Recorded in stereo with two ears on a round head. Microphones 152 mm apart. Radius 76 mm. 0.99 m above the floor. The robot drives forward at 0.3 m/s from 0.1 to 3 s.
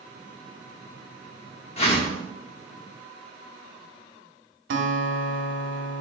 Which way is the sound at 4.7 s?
75° right (ahead or behind).